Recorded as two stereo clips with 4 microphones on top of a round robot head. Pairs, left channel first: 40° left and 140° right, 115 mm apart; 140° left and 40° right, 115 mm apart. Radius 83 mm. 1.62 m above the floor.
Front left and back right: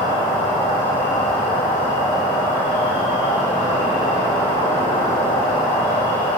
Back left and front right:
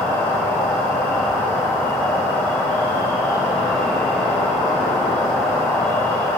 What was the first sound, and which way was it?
An insect, 55° left.